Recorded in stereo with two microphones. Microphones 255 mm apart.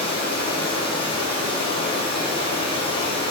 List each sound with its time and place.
0.0 s running water: 20° left (ahead or behind), 3.5 m